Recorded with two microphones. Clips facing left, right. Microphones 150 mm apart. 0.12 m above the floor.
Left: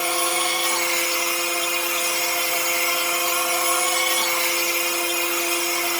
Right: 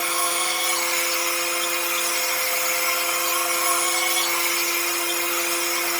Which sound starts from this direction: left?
An insect, at 0.0 s.